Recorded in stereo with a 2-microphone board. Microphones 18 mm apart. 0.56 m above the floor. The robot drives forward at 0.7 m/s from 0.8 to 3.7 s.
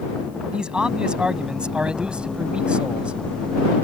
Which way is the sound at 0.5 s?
50° right (ahead or behind).